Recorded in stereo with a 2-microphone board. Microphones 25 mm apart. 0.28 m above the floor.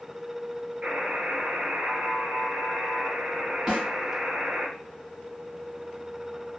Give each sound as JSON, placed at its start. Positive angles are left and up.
{"t": 0.8, "sound": "a buzzer", "side_deg": -75, "distance_m": 1.3}
{"t": 3.7, "sound": "a snare drum", "side_deg": -30, "distance_m": 1.7}